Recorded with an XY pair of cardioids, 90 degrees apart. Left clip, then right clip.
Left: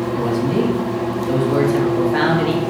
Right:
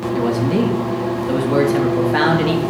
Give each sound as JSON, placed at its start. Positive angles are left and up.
{"t": 0.1, "sound": "a man speaking", "azimuth_deg": -30, "distance_m": 1.6}